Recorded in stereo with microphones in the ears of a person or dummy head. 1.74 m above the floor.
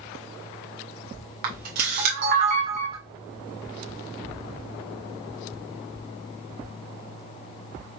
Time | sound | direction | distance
1.4 | a camera shutter | 45° right (ahead or behind) | 0.8 m